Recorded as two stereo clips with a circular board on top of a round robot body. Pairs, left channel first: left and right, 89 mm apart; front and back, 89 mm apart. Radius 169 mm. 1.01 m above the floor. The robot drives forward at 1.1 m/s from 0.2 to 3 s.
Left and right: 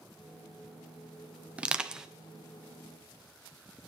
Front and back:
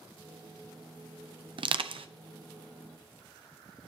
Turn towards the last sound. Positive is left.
turn(degrees=-175)